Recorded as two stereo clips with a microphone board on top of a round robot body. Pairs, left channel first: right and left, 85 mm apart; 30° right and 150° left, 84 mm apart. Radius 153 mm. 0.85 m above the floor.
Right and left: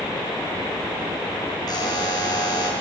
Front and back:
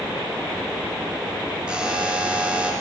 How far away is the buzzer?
About 5 m.